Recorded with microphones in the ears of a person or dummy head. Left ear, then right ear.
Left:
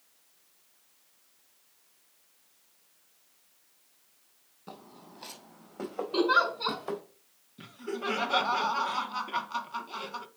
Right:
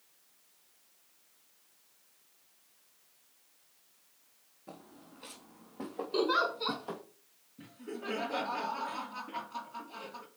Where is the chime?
No chime in this recording.